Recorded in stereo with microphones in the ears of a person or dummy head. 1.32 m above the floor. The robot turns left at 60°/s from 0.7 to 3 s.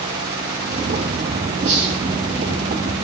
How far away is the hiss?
About 6.5 m.